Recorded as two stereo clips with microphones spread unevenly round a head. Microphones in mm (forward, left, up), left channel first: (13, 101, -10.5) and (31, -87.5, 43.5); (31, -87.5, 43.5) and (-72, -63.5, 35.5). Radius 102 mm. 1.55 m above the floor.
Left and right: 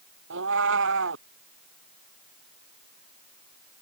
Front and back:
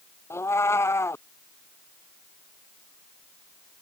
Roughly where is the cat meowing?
Right.